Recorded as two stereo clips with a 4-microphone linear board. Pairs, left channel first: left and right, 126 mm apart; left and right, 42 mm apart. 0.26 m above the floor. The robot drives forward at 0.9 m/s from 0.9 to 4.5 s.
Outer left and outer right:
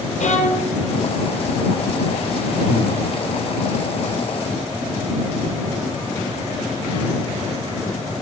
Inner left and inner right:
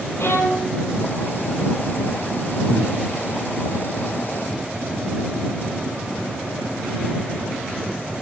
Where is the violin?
75° left (ahead or behind), 1.6 m.